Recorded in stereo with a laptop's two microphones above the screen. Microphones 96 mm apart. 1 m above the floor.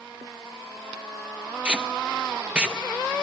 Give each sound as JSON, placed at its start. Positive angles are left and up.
{"t": 1.6, "sound": "tape being pulled", "side_deg": -15, "distance_m": 0.8}